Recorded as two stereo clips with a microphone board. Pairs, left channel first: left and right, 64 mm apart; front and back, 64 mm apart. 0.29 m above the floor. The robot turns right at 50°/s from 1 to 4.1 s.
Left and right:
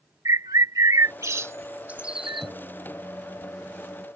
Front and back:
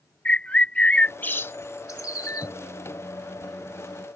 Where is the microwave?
55° right; by 4.1 s 35° left.